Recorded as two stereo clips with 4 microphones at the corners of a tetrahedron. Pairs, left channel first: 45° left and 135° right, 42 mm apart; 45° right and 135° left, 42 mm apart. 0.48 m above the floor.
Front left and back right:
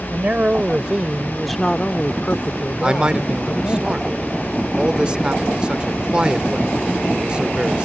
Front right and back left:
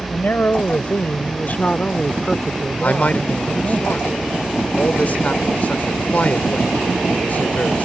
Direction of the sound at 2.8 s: 75° right.